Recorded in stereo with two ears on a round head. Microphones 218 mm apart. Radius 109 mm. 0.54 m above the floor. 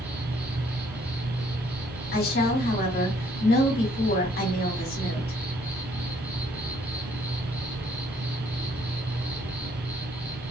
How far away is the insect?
About 1.1 m.